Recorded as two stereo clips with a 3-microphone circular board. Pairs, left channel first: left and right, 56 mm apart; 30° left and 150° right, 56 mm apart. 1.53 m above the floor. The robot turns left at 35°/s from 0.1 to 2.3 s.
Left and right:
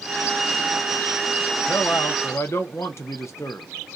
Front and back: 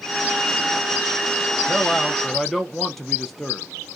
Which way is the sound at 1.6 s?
140° left.